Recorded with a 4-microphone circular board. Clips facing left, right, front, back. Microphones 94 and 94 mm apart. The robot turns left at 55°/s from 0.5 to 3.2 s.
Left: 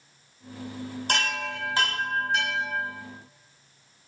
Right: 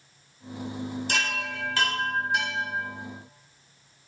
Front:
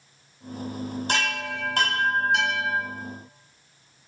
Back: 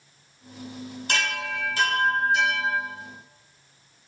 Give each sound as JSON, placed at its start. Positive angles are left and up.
{"t": 1.1, "sound": "a chime", "azimuth_deg": 55, "distance_m": 2.5}